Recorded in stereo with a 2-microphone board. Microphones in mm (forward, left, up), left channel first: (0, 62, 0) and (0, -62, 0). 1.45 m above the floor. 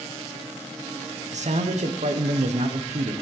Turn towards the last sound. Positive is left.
turn(degrees=-70)  # may be behind; listen again after turning